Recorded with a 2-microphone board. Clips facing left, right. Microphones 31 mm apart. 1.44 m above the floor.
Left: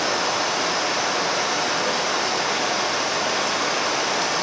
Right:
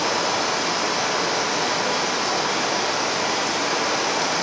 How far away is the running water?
About 3 m.